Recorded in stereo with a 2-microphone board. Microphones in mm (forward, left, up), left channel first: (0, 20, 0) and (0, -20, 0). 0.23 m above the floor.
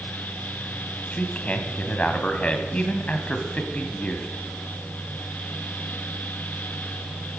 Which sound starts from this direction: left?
A man speaking, at 1.1 s.